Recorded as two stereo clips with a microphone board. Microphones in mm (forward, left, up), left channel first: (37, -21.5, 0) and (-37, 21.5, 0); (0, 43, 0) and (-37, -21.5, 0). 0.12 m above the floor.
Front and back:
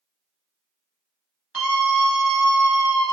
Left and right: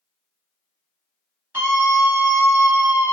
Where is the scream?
140° right, 1.6 m; by 3.1 s 50° right, 1.4 m.